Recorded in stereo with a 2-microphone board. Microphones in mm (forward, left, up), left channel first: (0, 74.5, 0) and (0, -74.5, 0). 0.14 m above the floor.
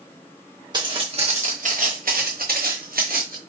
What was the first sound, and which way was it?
Footsteps, 30° right (ahead or behind).